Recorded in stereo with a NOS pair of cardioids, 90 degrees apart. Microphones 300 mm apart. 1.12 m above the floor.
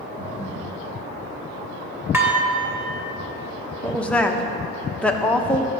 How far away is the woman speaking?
About 0.9 m.